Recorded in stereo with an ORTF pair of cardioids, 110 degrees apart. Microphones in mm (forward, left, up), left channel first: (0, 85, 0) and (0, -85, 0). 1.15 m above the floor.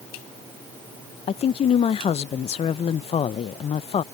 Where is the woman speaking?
40° left.